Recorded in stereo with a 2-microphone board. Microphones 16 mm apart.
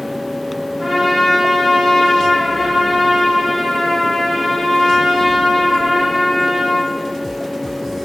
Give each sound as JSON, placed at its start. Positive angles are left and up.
{"t": 0.8, "sound": "a trumpet", "side_deg": 25, "distance_m": 1.8}